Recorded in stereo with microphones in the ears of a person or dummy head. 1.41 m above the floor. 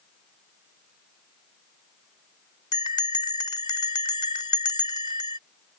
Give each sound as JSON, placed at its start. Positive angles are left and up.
{"t": 2.7, "sound": "a bell", "side_deg": 25}